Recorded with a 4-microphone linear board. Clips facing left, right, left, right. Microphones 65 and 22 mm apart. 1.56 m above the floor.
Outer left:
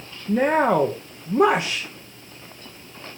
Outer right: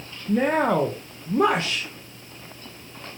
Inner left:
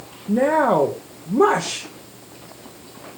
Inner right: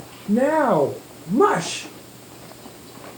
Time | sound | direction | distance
0.3 | a woman speaking | 10° left (ahead or behind) | 0.9 m